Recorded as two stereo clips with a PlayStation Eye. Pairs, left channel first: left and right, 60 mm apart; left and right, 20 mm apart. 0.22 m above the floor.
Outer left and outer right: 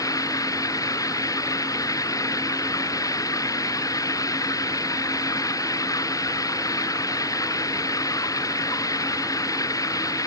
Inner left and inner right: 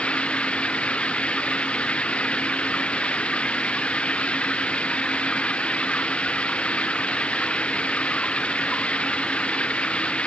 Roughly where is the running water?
Left.